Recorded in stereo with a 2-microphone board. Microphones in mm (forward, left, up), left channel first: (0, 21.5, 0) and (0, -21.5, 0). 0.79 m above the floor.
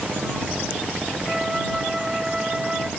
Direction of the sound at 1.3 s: 15° right (ahead or behind).